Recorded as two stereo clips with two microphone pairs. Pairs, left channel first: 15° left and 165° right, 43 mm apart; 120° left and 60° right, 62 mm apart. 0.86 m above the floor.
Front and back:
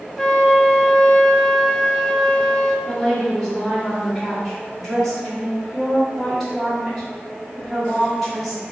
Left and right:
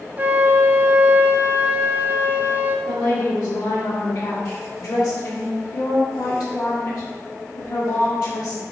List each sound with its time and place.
0.2 s a flute: 55° right, 0.8 m
2.9 s a woman speaking: 100° left, 2.5 m